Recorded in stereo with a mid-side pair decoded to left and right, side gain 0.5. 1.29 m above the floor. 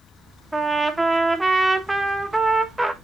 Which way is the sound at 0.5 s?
10° right.